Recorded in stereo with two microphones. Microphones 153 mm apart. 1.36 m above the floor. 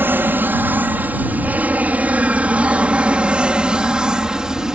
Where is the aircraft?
10° right (ahead or behind); by 4.8 s 5° right (ahead or behind).